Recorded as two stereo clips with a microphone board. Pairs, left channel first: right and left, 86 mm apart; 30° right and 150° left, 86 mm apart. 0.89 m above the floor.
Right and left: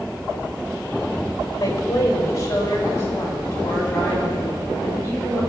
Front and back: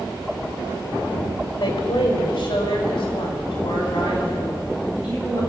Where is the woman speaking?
45° right, 3.5 m; by 5.4 s 30° right, 7.5 m.